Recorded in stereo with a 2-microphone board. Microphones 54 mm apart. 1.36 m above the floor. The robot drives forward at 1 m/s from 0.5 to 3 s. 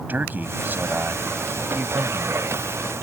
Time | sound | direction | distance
0.1 | a man speaking | 35° right (ahead or behind) | ?